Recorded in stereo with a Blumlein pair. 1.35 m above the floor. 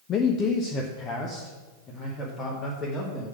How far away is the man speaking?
About 0.6 m.